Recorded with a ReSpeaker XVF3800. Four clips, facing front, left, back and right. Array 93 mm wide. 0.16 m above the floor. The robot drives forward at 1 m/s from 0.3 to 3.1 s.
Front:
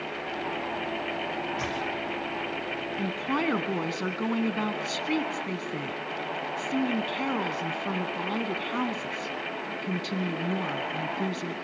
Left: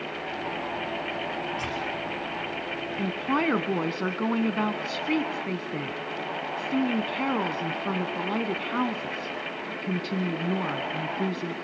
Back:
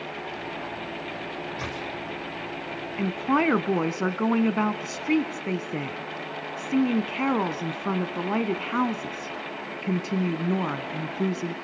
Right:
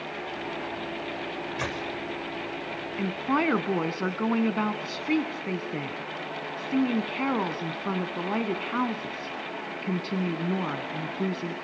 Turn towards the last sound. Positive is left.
turn(degrees=180)